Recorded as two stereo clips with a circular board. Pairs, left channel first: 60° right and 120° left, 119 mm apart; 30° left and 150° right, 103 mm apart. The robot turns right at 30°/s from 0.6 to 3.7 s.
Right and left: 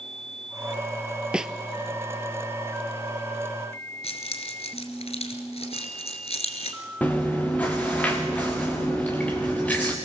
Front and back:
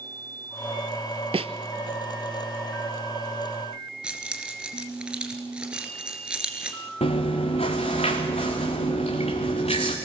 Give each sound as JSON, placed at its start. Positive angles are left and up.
{"t": 1.3, "sound": "a snare drum", "azimuth_deg": -160, "distance_m": 0.6}
{"t": 4.0, "sound": "keys jangling", "azimuth_deg": -70, "distance_m": 2.0}
{"t": 7.0, "sound": "chewing", "azimuth_deg": 20, "distance_m": 2.5}